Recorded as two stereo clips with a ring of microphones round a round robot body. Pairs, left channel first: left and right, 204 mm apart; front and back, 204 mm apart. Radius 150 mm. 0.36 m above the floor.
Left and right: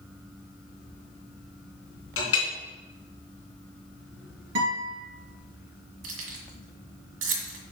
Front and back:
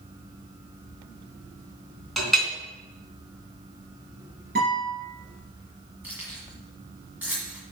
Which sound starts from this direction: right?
Keys jangling, at 6.0 s.